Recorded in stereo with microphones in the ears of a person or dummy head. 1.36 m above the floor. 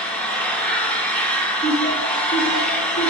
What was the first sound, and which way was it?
An engine running, 10° left (ahead or behind).